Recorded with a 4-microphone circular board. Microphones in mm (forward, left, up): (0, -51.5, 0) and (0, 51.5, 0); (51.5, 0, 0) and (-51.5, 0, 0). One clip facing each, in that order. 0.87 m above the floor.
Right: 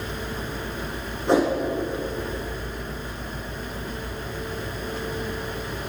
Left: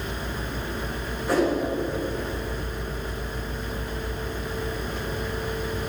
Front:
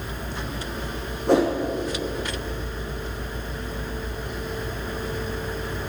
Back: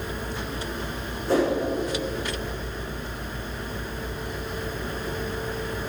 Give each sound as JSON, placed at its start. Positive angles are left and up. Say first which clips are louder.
{"t": 1.3, "sound": "a whoosh", "louder": "right 2 dB, front 3 dB", "azimuth_deg": -25, "distance_m": 8.0}